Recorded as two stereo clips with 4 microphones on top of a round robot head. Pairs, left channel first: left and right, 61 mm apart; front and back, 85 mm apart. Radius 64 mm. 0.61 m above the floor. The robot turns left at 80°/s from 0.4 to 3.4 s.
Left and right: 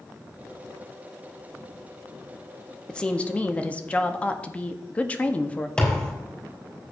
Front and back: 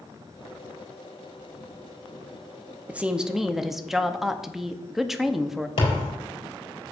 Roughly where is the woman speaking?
Behind left.